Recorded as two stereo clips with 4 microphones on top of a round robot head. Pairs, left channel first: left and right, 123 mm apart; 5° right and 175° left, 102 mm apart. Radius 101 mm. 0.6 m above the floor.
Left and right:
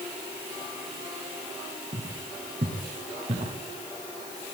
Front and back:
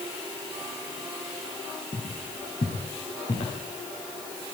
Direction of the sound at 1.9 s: 45° right.